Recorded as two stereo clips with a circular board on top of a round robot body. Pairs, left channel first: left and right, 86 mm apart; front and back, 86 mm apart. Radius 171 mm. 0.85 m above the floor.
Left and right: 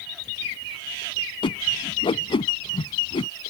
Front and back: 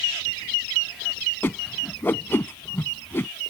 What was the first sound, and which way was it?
A whoosh, 65° left.